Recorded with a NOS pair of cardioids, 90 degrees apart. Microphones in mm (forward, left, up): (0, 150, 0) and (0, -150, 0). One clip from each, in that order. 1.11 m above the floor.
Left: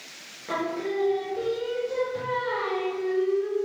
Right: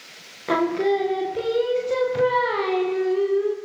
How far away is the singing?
About 0.5 m.